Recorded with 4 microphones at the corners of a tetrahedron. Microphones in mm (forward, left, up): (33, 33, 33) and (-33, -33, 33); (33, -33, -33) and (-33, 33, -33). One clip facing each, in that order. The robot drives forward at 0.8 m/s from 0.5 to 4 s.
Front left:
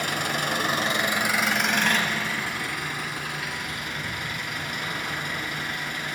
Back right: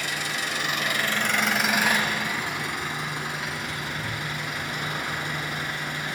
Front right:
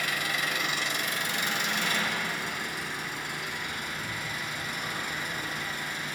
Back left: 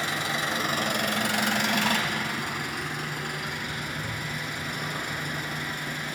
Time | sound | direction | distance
0.0 | an engine running | 75° left | 0.7 m